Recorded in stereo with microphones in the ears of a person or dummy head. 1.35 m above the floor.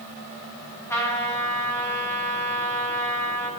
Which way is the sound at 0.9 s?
15° left (ahead or behind).